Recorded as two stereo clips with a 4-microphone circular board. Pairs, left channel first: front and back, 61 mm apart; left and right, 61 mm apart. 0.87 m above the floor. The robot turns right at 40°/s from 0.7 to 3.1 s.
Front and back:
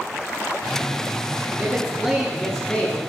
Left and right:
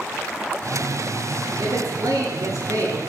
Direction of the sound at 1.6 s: 125° right.